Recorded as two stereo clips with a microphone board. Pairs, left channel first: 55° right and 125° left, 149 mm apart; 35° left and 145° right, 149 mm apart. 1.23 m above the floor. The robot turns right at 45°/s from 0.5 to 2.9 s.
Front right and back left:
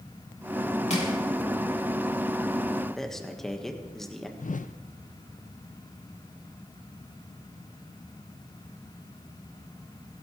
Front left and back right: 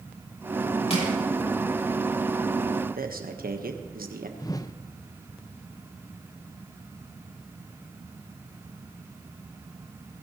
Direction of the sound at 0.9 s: 15° right.